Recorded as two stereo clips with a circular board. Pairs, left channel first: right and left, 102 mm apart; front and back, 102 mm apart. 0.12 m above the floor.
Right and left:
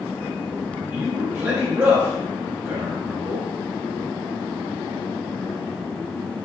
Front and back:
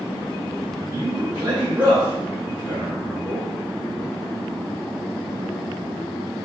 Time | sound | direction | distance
0.9 | a man speaking | 125° left | 1.8 m